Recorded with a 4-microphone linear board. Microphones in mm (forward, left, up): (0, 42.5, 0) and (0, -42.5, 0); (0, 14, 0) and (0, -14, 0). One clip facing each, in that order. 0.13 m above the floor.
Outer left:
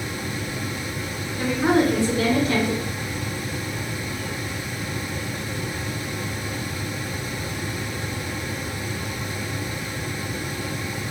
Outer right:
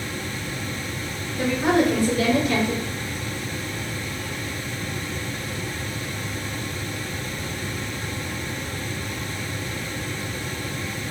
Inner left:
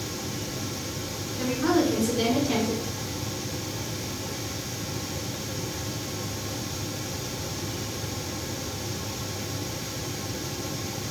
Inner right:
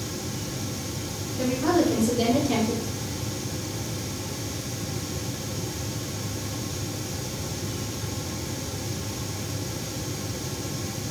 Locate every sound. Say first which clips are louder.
1.4 s a woman speaking: even, inner right 1 dB; 20° left (ahead or behind), 1.7 m